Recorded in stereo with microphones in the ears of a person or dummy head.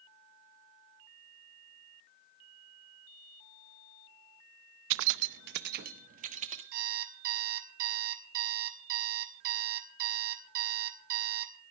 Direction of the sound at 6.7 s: 55° right (ahead or behind).